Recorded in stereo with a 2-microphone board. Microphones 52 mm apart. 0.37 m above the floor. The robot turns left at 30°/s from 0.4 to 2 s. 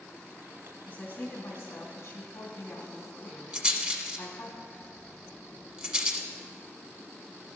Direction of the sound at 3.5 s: 20° right (ahead or behind).